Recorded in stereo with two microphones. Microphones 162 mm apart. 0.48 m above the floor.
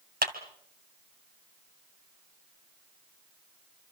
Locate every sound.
0.2 s a clap: 75° right (ahead or behind), 2 m